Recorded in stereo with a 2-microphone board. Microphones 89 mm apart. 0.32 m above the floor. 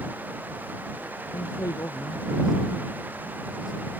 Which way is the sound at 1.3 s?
45° left (ahead or behind).